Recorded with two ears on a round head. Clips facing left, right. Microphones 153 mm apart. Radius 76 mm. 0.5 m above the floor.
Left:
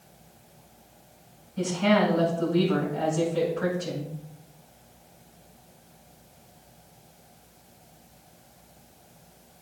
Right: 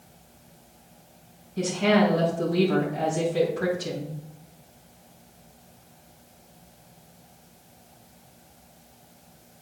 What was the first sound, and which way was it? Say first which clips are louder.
A woman speaking: right 1 dB; 40° right (ahead or behind).